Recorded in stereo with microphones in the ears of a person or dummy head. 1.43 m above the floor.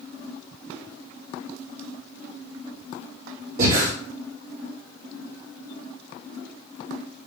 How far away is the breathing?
About 1.9 m.